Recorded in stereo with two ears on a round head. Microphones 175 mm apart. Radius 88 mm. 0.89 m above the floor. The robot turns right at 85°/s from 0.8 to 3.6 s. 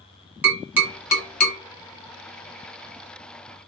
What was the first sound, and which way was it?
Tapping, 10° right (ahead or behind).